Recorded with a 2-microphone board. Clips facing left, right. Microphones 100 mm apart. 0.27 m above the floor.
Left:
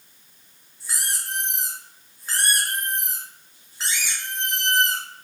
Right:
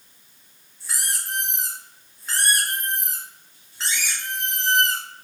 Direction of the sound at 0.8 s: 5° left (ahead or behind).